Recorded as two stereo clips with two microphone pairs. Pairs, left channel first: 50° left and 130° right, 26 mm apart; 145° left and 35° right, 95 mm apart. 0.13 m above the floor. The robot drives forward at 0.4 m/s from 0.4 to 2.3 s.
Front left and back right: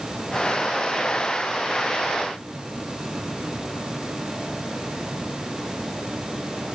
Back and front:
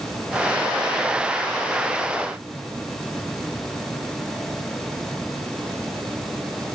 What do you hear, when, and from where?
Only background noise.